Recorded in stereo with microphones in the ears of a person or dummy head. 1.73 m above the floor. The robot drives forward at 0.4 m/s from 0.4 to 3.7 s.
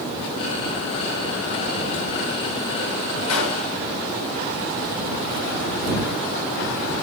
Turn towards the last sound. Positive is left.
turn(degrees=80)